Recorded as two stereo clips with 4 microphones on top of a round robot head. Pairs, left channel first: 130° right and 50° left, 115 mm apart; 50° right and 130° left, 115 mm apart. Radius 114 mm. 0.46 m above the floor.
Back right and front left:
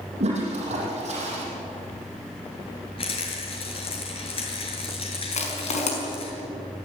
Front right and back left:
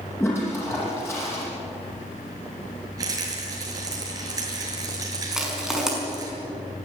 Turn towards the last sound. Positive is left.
turn(degrees=-145)